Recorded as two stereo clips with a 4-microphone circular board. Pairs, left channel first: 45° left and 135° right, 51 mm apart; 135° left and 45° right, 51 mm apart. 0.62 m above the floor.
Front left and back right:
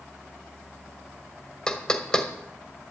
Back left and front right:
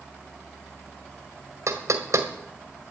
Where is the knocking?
30° right, 1.6 m.